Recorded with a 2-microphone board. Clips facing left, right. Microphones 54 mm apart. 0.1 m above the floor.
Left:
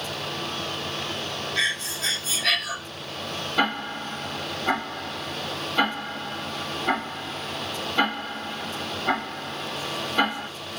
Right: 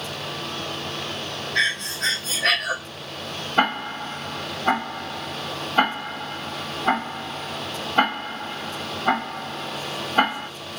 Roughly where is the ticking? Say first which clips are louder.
Right 3 dB; right.